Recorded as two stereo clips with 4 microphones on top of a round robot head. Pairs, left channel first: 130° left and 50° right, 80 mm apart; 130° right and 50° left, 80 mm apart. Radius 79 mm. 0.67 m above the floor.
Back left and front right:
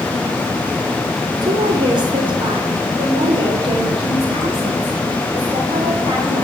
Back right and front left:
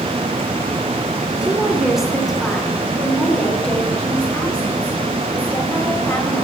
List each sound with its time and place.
1.4 s a woman speaking: 30° right, 2.5 m; by 6.4 s 60° right, 4.5 m